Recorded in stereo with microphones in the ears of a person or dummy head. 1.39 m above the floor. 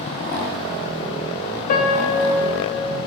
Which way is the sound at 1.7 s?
40° left (ahead or behind).